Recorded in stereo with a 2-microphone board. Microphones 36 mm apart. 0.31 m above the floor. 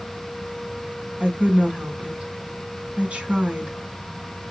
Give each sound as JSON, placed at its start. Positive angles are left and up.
{"t": 1.2, "sound": "a woman speaking", "side_deg": -35, "distance_m": 2.5}